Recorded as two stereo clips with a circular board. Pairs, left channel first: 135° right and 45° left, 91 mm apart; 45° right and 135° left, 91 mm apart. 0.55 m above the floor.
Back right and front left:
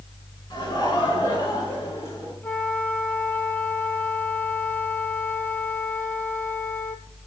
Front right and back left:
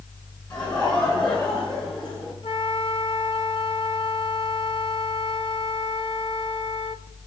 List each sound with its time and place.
0.5 s laughter: 85° right, 7 m; by 2.3 s 75° right, 7.5 m
2.4 s a flute: 65° right, 1.1 m